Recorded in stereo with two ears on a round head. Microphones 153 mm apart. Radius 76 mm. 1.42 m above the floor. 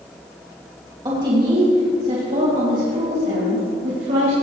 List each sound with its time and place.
1.1 s a woman speaking: 25° right (ahead or behind), 2.5 m; by 4.3 s 60° right (ahead or behind), 4 m